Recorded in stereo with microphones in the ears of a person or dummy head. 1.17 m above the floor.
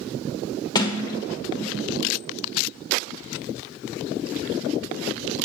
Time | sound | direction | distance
0.8 | a sliding door | 20° left (ahead or behind) | 1.3 m